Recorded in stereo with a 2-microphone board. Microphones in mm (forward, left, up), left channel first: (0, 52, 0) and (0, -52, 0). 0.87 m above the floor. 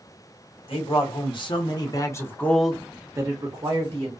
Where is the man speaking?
60° left (ahead or behind), 1.2 m; by 4.1 s 50° right (ahead or behind), 0.9 m.